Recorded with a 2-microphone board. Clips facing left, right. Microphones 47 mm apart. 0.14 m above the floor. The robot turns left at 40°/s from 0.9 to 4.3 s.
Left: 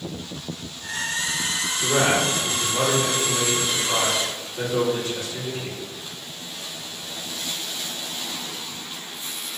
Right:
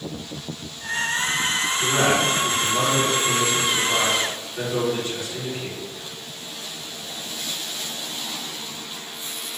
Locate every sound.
1.8 s a man speaking: 30° left, 1.8 m; by 5.9 s 70° right, 1.8 m